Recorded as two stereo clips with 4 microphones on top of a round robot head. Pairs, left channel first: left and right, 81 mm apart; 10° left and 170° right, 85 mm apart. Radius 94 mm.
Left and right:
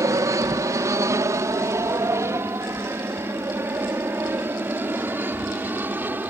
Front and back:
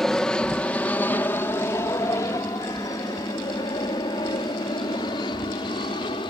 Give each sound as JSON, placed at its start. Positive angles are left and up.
{"t": 0.0, "sound": "an aircraft", "azimuth_deg": -75}